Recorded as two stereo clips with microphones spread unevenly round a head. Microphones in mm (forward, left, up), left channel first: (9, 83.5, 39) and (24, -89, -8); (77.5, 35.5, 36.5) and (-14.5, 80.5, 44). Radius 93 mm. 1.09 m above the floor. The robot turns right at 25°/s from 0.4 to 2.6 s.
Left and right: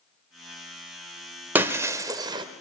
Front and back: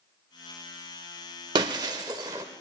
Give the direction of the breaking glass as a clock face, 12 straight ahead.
6 o'clock.